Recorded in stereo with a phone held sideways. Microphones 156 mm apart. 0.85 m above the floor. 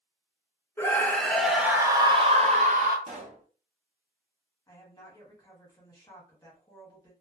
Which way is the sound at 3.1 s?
50° right (ahead or behind).